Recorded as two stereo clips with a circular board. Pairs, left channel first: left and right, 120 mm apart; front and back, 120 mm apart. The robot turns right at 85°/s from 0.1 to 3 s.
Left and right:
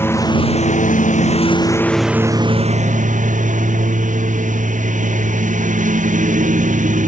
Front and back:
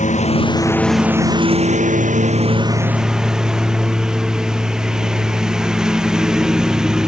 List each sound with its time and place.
0.0 s a lawn mower: 20° left; by 7.1 s 95° right